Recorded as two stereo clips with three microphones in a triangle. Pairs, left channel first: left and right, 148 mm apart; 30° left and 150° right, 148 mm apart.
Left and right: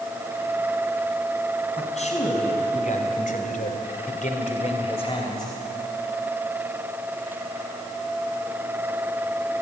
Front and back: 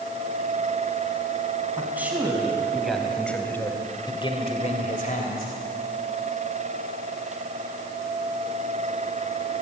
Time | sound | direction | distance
1.8 | a man speaking | 130° left | 4.5 m